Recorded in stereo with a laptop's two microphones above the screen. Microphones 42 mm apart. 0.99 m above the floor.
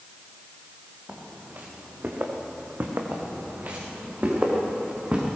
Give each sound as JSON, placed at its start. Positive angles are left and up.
{"t": 1.1, "sound": "footsteps", "side_deg": -40, "distance_m": 5.0}
{"t": 3.1, "sound": "footsteps", "side_deg": -50, "distance_m": 5.5}